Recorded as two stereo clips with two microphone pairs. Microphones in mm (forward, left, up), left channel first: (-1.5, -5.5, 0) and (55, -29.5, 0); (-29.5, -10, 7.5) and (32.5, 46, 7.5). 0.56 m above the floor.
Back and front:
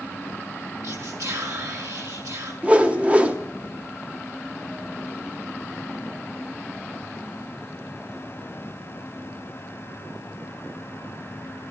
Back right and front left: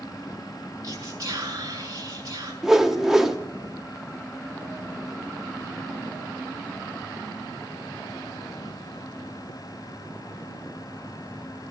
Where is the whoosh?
35° right, 1.1 m.